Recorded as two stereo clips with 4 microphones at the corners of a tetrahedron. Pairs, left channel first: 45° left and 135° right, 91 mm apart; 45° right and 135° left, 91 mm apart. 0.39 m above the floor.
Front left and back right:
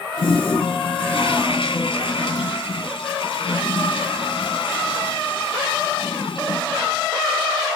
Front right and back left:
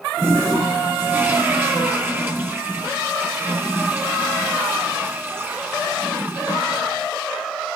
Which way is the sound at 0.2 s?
65° left.